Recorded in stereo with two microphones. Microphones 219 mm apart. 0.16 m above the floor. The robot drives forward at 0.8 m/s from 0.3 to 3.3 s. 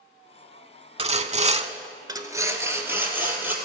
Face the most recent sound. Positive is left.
turn(degrees=-10)  # may be behind; listen again after turning